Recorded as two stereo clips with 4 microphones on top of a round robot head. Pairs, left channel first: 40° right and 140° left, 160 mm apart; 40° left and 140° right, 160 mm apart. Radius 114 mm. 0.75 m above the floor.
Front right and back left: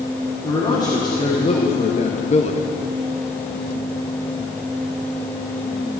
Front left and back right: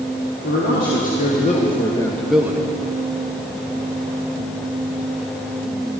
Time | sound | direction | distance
0.4 | a man speaking | 30° left | 2.5 m